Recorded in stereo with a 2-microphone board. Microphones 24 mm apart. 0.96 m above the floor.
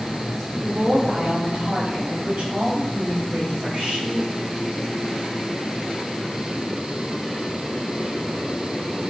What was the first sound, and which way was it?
A woman speaking, 80° right.